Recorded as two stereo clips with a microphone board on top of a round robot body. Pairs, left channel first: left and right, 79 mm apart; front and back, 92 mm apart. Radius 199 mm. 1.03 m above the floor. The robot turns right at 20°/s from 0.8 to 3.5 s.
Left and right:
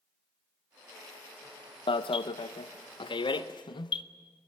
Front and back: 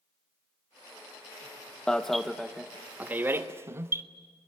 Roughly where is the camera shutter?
No camera shutter in this recording.